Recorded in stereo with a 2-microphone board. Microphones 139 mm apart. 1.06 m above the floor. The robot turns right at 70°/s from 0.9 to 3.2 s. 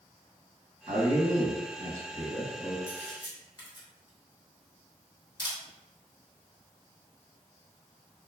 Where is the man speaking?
140° right, 1.4 m; by 2.8 s 10° right, 1.4 m.